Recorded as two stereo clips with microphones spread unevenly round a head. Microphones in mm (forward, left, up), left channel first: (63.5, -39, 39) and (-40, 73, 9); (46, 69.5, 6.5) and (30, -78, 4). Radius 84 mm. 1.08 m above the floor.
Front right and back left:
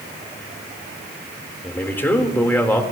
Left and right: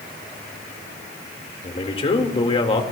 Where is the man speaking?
35° left, 2.5 m.